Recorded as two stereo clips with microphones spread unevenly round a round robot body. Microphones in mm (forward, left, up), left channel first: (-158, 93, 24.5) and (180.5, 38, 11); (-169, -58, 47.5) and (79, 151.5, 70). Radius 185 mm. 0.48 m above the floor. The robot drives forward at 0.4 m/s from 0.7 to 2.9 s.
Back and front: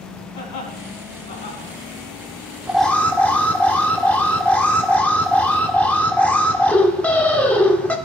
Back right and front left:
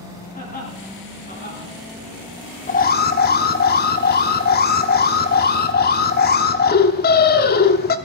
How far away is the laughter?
About 5 m.